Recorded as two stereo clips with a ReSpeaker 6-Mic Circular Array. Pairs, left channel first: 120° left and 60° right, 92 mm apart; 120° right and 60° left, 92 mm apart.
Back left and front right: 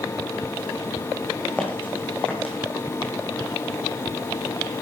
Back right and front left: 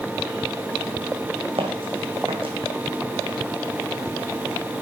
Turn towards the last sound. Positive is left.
turn(degrees=50)